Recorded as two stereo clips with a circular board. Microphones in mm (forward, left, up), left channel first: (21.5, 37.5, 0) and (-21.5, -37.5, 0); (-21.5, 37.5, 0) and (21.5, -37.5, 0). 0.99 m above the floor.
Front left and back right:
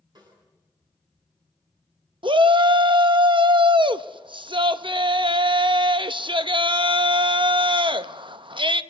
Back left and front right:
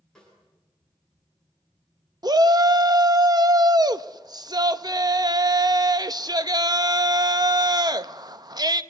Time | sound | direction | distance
0.1 | a snare drum | 155° right | 10 m
2.2 | a shout | 100° right | 0.8 m